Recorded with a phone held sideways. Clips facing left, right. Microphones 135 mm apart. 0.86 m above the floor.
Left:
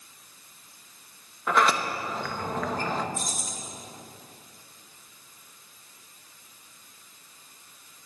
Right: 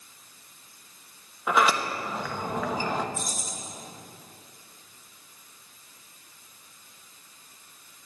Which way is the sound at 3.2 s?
80° left.